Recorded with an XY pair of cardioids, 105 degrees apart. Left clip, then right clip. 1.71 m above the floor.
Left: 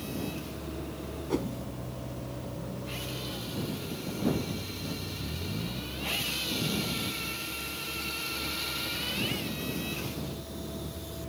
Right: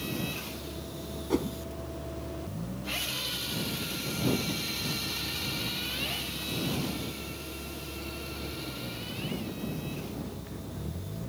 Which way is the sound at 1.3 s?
15° right.